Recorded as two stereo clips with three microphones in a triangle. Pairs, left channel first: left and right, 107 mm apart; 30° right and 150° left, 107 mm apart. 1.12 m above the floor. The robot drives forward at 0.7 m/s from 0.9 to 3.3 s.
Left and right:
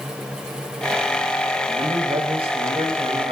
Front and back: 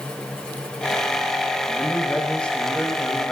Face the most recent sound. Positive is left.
turn(degrees=-115)